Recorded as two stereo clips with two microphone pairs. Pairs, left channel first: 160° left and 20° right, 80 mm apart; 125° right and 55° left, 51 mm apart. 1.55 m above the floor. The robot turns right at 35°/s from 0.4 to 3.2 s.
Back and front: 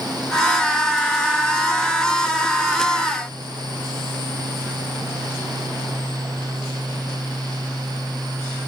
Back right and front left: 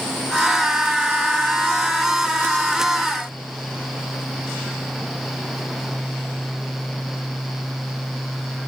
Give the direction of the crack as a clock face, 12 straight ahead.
No crack in this recording.